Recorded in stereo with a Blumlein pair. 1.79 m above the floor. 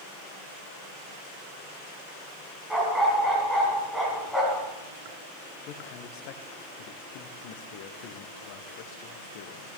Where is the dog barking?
5° right, 4.5 m.